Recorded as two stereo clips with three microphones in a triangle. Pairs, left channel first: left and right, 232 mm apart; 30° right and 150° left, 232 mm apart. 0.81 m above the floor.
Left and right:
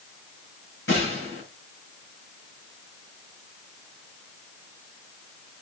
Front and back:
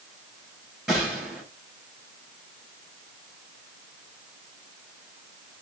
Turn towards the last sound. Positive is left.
turn(degrees=65)